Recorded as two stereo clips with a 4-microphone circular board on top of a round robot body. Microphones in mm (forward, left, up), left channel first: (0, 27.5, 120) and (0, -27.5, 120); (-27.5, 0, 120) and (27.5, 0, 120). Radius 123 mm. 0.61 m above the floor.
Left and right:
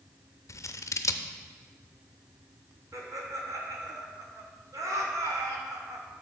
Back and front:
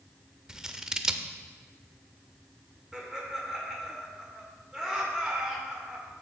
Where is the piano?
No piano in this recording.